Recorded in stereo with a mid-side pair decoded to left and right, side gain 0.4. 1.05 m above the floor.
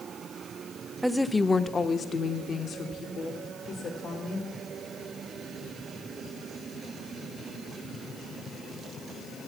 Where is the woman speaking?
10° right, 0.6 m; by 4.5 s 75° left, 3 m.